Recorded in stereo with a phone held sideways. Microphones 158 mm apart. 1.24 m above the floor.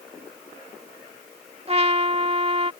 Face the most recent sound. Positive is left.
turn(degrees=-40)  # may be behind; listen again after turning